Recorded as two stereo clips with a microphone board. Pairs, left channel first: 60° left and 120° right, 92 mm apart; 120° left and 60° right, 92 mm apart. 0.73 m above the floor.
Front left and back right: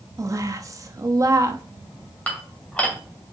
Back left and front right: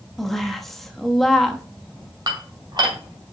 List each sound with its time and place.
0.2 s a woman speaking: 155° right, 1.0 m
2.3 s dishes clattering: 15° right, 2 m